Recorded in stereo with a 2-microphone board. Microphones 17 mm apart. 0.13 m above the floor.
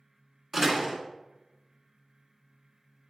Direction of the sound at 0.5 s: 10° right (ahead or behind).